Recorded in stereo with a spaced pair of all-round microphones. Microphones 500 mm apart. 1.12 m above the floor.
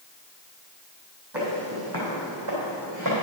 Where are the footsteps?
55° right (ahead or behind), 3 m; by 3.2 s 65° right (ahead or behind), 3.5 m.